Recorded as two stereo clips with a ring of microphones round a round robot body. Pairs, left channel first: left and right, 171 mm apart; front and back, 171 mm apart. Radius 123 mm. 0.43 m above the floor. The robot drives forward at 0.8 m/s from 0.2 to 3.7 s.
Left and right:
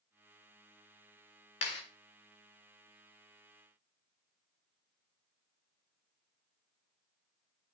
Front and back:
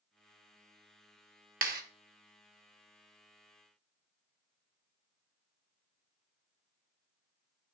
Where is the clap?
150° left, 1.5 m; by 1.8 s 155° left, 1.7 m.